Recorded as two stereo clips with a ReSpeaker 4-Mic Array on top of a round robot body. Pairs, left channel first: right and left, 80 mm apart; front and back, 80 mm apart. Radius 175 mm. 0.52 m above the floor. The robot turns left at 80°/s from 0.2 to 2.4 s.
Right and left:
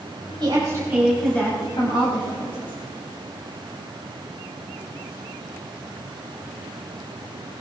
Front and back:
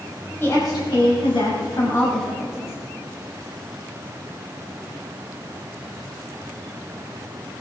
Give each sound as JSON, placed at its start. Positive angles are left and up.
{"t": 0.4, "sound": "a woman speaking", "azimuth_deg": 65, "distance_m": 4.5}